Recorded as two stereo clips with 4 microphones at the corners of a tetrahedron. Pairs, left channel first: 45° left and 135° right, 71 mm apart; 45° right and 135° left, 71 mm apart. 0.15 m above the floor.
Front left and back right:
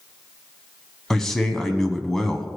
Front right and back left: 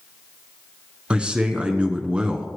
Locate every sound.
1.1 s a man speaking: 115° left, 1.0 m